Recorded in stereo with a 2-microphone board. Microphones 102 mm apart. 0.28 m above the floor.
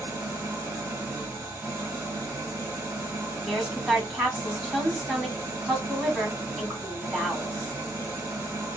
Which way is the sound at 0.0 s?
25° right (ahead or behind).